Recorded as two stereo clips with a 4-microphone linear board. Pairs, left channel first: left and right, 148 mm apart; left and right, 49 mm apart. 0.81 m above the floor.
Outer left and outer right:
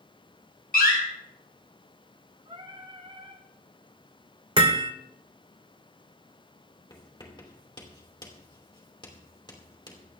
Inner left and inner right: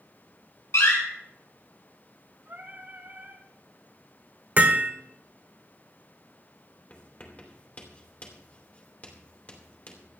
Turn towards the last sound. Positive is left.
turn(degrees=30)  # may be behind; listen again after turning